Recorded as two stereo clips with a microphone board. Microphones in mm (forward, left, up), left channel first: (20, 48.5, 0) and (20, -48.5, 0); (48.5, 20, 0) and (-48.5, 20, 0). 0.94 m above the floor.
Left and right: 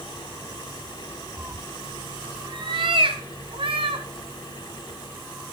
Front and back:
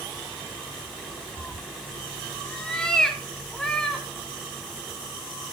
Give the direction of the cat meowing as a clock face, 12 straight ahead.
2 o'clock.